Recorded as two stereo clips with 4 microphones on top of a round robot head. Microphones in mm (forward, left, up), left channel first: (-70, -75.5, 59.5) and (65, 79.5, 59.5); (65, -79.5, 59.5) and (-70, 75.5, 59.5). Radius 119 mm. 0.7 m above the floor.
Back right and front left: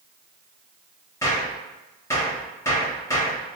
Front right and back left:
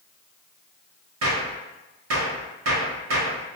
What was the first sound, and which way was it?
A gunshot, 150° left.